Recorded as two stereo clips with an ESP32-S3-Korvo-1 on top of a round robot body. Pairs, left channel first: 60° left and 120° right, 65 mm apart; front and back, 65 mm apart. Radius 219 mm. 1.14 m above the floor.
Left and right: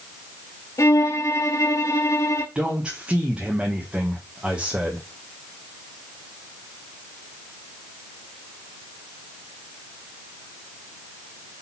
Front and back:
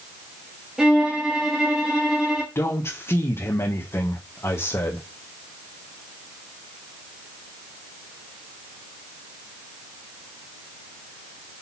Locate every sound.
0.8 s a violin: 95° left, 0.8 m
2.5 s a man speaking: 45° right, 1.5 m